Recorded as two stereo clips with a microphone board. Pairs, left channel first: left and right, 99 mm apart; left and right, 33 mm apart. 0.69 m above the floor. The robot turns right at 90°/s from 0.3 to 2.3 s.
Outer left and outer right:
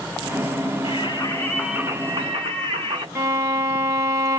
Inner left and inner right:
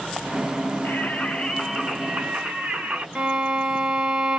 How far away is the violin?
About 3 m.